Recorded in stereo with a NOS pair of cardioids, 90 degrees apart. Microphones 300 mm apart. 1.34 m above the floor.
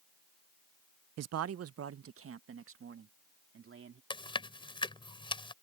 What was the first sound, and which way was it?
A man speaking, 60° right.